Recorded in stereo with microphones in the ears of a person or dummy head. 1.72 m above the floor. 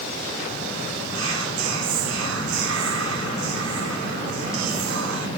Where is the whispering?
80° right, 1.4 m.